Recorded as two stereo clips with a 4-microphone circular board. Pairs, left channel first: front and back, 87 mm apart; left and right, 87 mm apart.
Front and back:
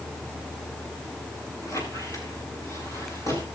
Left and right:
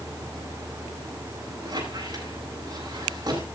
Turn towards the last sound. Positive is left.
turn(degrees=-50)